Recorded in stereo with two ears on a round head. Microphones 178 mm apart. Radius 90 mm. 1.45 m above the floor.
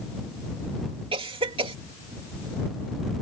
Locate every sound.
1.1 s a cough: 25° right (ahead or behind)